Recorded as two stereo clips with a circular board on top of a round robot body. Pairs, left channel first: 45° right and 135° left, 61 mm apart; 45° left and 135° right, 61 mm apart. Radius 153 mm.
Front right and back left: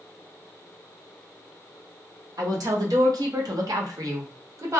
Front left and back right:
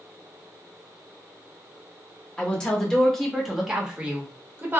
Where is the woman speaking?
120° left, 1.6 m; by 4.8 s 170° left, 1.1 m.